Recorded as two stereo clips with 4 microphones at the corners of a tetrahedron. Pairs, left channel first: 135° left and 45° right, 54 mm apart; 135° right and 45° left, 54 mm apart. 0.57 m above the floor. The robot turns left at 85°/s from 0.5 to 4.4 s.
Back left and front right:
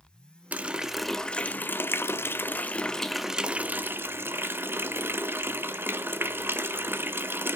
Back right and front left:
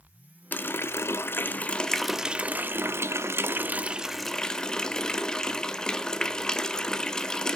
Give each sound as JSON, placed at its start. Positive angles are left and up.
{"t": 0.5, "sound": "a running tap", "azimuth_deg": -95, "distance_m": 0.5}